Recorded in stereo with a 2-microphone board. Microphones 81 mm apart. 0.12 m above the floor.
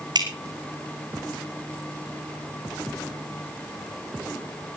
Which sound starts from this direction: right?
Dripping, at 0.1 s.